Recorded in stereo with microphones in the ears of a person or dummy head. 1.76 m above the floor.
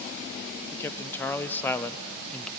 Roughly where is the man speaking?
Centre.